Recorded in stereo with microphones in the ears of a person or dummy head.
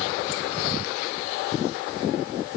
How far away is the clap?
No clap in this recording.